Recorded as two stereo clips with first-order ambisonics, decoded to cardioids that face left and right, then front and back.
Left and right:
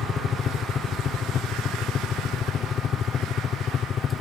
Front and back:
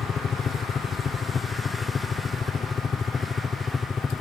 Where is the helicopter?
45° left; by 4.2 s 60° left.